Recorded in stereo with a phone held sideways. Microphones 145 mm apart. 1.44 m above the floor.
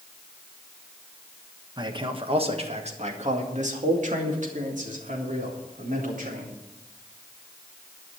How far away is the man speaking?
About 1.3 m.